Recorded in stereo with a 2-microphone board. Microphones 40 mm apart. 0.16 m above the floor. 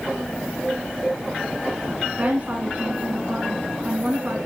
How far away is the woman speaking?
About 1.6 m.